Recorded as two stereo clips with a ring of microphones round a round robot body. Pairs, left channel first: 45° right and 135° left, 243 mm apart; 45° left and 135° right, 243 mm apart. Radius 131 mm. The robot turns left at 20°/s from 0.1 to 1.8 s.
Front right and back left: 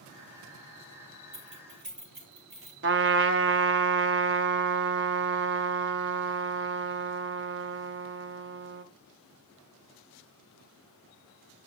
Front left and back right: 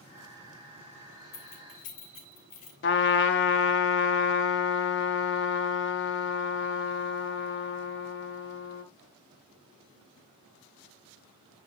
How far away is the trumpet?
About 0.8 m.